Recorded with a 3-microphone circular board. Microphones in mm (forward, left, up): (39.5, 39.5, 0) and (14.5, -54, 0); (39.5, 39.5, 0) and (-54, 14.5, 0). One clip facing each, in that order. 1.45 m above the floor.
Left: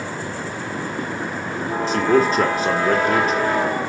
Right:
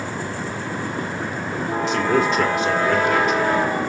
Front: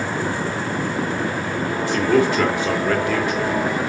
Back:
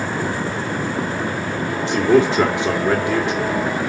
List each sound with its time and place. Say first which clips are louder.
1.9 s a man speaking: left 3 dB, back 3 dB; 125° left, 1.8 m